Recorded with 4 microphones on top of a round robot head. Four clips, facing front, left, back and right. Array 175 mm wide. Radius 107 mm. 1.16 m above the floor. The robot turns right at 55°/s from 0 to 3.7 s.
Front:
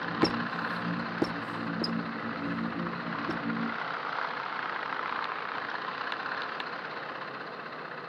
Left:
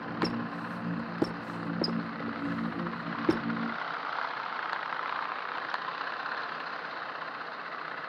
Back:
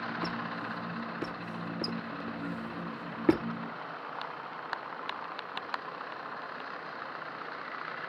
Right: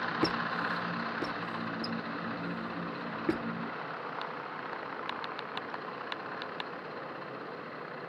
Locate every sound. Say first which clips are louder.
0.2 s a squeak: even, front 7 dB; 10° right; by 3.5 s 170° left